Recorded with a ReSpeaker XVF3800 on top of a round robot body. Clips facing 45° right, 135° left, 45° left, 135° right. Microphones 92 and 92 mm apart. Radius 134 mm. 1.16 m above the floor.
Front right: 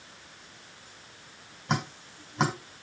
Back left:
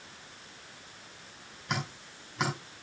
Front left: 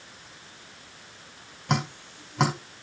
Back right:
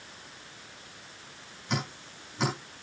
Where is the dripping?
10° left, 4.5 m.